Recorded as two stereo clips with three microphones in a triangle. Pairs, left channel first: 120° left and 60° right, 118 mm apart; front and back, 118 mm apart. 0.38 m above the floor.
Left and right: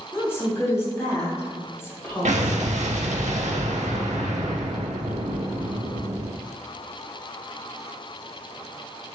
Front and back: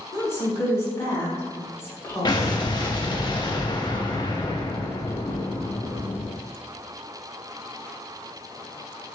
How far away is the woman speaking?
About 1.5 m.